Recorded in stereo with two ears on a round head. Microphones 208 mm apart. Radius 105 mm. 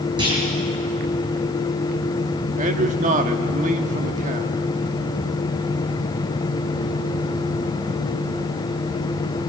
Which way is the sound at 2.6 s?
35° right (ahead or behind).